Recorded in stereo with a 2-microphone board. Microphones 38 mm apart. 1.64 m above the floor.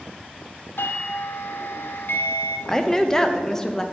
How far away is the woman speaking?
About 0.6 m.